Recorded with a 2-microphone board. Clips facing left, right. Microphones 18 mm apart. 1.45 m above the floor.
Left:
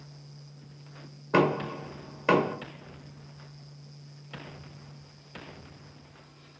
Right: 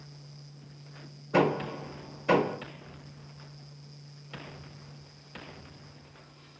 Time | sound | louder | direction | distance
1.3 | knocking | left 1 dB | 65° left (ahead or behind) | 1.8 m